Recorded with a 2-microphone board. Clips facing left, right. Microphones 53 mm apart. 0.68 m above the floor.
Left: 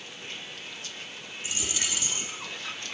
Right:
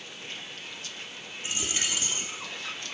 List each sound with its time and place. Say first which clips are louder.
1.4 s a dropped coin: right 1 dB; 35° right (ahead or behind), 3 m